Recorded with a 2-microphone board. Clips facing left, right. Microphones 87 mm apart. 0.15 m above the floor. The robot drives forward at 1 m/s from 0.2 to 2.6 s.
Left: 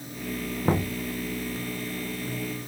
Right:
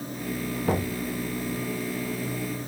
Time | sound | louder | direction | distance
0.7 | knocking | left 1 dB | 40° left (ahead or behind) | 1.2 m